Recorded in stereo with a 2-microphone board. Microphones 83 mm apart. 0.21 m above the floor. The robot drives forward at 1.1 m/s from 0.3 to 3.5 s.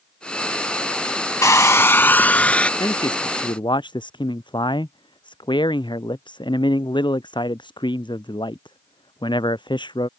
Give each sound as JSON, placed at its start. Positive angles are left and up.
{"t": 1.4, "sound": "a hair dryer", "side_deg": 40}
{"t": 2.8, "sound": "a man speaking", "side_deg": 65}